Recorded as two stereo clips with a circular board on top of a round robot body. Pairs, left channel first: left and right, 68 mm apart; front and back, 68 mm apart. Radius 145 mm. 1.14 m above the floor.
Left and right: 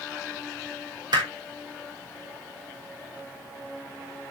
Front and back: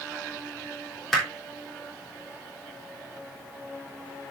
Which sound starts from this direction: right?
Hammering, at 1.1 s.